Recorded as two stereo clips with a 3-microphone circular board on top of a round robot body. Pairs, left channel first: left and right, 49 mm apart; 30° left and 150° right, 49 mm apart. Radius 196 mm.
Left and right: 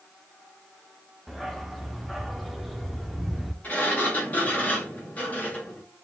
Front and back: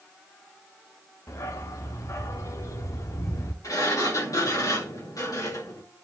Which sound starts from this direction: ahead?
A dog barking, at 1.3 s.